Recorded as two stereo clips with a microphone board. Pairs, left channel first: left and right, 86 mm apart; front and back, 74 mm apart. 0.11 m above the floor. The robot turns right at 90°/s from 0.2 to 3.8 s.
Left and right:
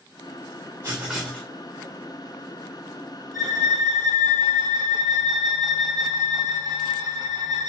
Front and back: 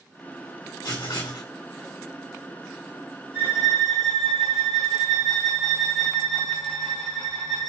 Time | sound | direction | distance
0.8 | writing | 35° right | 2.5 m
3.3 | a violin | 125° right | 3.5 m